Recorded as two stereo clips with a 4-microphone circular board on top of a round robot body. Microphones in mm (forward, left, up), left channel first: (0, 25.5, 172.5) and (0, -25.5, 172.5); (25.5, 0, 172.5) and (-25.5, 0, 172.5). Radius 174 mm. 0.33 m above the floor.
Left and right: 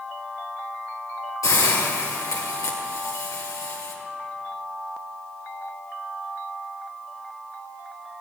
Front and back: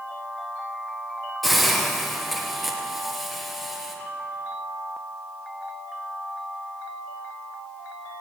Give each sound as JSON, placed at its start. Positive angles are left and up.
{"t": 1.4, "sound": "a hiss", "azimuth_deg": 90, "distance_m": 3.0}